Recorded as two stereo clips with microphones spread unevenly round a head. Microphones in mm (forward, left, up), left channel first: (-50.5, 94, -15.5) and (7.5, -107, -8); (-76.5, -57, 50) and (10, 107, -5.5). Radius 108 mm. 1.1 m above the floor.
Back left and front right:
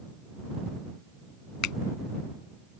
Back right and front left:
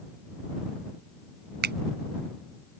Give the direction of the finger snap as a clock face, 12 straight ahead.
9 o'clock.